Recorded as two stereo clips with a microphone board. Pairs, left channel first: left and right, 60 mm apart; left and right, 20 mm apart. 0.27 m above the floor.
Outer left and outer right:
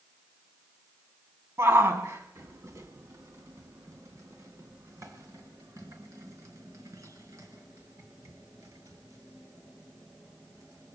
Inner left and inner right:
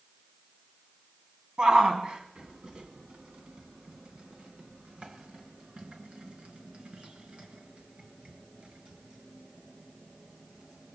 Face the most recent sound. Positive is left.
turn(degrees=-60)  # may be behind; listen again after turning